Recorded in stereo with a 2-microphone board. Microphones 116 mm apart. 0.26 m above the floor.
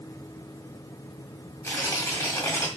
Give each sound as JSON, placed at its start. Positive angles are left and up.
{"t": 1.6, "sound": "tearing paper", "side_deg": 25, "distance_m": 1.7}